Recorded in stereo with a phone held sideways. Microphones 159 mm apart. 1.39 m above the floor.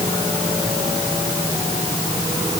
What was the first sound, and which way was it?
Only background noise.